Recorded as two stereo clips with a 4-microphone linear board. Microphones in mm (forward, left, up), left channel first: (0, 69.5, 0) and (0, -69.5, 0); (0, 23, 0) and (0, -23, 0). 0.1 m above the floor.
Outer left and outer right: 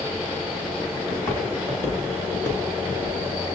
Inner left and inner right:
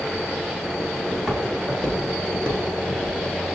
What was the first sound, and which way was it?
Footsteps, 15° left (ahead or behind).